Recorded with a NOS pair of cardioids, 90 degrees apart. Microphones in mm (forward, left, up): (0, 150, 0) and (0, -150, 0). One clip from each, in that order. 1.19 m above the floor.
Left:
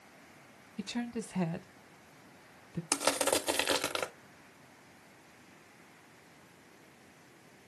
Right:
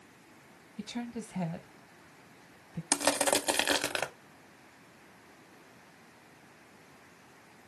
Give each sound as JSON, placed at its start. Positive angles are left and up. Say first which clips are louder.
{"t": 0.8, "sound": "a woman speaking", "louder": "left 2 dB", "azimuth_deg": 15, "distance_m": 0.7}
{"t": 2.9, "sound": "crushing", "louder": "right 2 dB", "azimuth_deg": -10, "distance_m": 0.6}